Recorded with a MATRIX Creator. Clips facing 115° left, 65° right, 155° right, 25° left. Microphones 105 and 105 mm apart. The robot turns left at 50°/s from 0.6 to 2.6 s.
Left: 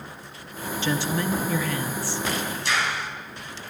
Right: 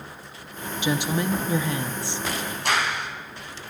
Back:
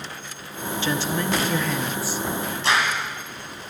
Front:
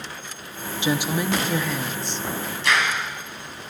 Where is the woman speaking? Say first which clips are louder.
Right 1 dB, front 2 dB; 20° right, 0.8 m; by 2.2 s 90° right, 0.8 m.